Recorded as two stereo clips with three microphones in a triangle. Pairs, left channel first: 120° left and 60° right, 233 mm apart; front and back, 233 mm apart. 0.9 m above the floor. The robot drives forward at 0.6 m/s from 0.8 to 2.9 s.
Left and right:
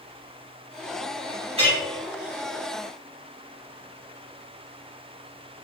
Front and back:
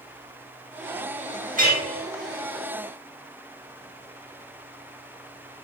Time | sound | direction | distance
1.6 | a clink | 125° right | 1.0 m